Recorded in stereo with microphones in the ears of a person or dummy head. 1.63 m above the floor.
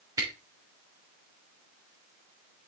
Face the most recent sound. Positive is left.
turn(degrees=-20)  # may be behind; listen again after turning